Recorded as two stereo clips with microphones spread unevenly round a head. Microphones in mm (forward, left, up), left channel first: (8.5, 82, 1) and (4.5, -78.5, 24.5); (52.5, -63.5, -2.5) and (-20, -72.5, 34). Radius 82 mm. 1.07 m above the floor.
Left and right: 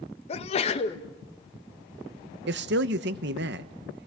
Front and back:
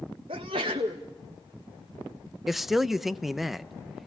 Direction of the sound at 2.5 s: 75° right.